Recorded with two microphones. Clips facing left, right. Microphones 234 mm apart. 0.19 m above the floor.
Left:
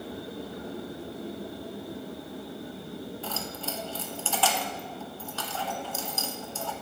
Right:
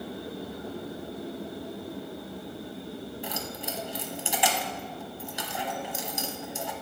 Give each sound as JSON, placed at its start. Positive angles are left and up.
{"t": 3.2, "sound": "keys jangling", "side_deg": -15, "distance_m": 0.7}